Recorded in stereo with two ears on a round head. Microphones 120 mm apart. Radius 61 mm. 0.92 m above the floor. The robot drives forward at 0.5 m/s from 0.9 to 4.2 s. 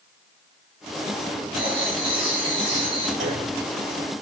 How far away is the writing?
About 3.5 m.